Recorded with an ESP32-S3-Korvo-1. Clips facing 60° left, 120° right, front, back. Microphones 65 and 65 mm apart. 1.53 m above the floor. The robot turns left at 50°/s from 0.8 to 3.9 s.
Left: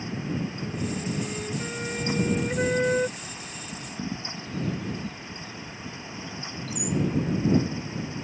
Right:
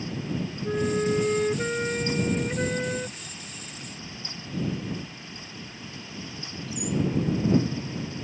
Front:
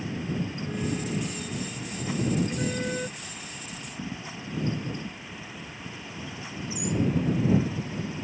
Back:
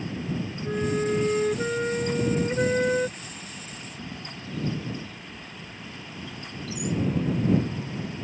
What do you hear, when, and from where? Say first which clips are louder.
0.7 s a flute: right 6 dB, back 9 dB; 130° right; by 3.1 s 115° left
3.2 s a bird: left 3 dB, even; 105° left; by 7.3 s 70° left